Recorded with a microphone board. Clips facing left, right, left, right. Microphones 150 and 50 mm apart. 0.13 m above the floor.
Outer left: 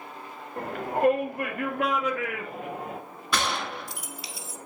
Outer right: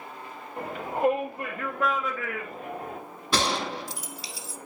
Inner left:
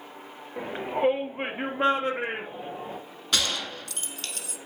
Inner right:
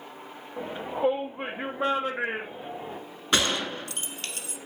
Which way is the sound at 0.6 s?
55° left (ahead or behind).